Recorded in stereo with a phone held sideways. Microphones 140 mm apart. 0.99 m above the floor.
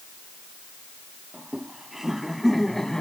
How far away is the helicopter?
I don't hear a helicopter.